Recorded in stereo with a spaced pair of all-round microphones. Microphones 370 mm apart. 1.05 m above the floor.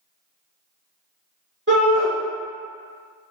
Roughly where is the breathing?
I don't hear breathing.